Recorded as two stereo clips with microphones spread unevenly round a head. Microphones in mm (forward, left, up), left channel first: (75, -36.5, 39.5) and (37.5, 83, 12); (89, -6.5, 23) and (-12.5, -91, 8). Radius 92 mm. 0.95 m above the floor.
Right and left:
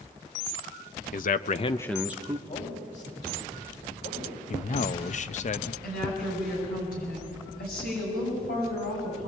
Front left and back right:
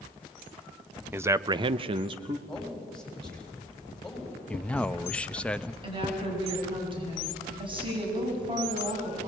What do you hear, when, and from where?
1.1 s a man speaking: 70° right, 1.0 m; by 2.4 s 160° left, 1.1 m
2.5 s a man speaking: 45° right, 6.5 m
4.5 s a man speaking: 45° right, 0.8 m
5.8 s a woman speaking: 90° right, 7.5 m